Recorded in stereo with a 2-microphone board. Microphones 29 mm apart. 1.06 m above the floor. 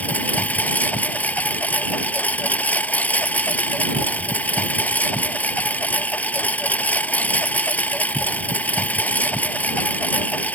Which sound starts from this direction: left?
A lawn mower, at 0.0 s.